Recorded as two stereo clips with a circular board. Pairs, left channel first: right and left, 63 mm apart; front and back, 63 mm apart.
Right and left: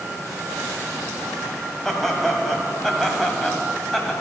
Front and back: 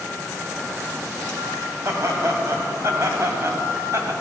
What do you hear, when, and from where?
1.9 s laughter: 170° right, 1.9 m